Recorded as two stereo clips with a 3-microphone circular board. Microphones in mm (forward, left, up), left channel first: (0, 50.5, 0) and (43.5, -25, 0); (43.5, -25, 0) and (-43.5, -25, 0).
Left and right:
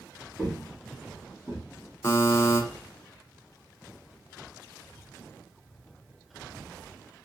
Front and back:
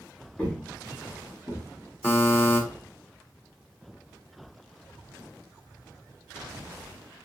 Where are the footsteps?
40° left, 1.6 m; by 1.6 s 10° right, 1.9 m.